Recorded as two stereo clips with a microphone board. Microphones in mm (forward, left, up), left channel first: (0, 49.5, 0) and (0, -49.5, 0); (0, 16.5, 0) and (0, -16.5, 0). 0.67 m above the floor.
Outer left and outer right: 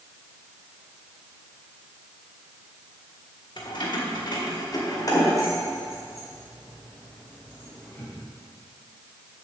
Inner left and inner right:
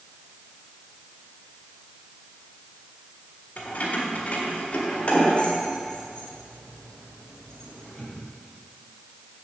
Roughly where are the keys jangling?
Left.